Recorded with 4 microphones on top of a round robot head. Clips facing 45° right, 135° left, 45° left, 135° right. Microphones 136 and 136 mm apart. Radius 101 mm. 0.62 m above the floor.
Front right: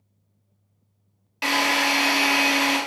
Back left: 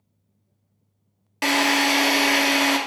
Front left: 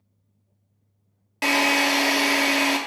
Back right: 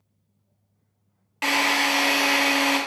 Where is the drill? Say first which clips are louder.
Back left 3 dB, front left 2 dB; 100° left, 0.7 m.